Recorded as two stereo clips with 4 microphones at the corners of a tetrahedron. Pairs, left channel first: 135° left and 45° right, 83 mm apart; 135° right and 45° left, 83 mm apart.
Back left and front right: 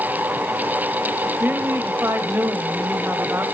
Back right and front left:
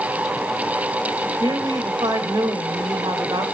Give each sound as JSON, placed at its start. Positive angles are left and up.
{"t": 1.4, "sound": "a woman speaking", "azimuth_deg": 20, "distance_m": 2.0}